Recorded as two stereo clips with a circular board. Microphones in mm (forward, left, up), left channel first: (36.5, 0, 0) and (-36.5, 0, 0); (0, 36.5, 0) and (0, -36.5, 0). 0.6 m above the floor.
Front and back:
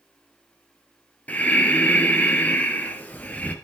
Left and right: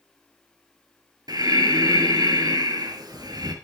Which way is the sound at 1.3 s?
70° right.